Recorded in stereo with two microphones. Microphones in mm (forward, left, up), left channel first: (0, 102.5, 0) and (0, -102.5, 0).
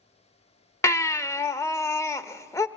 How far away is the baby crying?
About 0.6 m.